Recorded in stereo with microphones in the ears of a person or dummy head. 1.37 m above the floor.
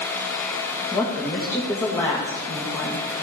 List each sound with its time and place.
0.9 s a woman speaking: 15° left (ahead or behind), 1.9 m